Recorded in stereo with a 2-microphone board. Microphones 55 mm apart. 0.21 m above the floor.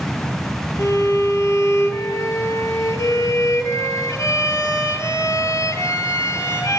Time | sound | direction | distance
0.8 | a violin | 70° left (ahead or behind) | 2.5 m